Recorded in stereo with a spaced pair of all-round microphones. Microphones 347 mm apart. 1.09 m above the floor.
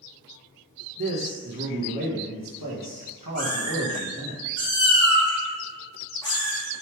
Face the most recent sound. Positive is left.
turn(degrees=10)  # may be behind; listen again after turning